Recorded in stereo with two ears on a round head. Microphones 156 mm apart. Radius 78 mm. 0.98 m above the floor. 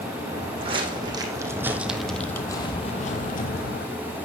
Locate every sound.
0.3 s footsteps: 35° right (ahead or behind), 3 m; by 3.9 s 65° left (ahead or behind), 2 m